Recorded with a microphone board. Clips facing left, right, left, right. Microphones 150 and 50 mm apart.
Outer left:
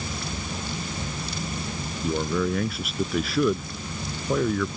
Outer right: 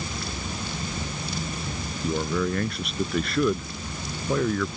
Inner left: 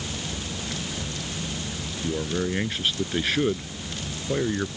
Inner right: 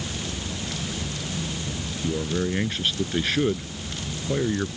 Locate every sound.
2.0 s a man speaking: centre (ahead or behind)